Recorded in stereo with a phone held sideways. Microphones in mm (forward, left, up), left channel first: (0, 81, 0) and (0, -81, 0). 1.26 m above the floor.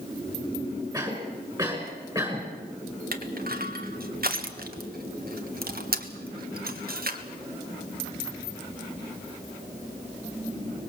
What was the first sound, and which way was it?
A cough, 25° right (ahead or behind).